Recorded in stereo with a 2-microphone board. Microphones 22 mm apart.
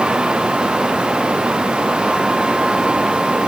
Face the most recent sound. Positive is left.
No sound to turn to.